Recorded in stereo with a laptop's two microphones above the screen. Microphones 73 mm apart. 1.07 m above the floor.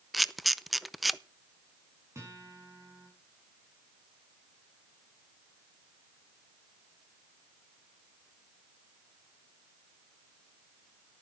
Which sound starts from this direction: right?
A guitar, at 2.1 s.